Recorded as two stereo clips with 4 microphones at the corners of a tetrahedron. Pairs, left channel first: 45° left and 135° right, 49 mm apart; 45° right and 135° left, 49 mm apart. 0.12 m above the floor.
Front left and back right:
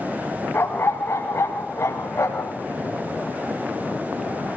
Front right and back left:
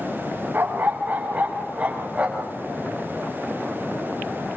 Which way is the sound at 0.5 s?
80° left.